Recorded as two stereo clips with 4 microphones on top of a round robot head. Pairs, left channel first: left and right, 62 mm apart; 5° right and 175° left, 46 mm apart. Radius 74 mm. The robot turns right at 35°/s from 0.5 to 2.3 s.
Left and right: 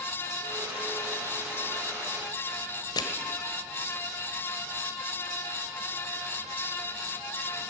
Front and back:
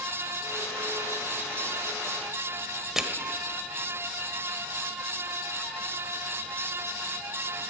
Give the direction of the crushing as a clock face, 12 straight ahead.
9 o'clock.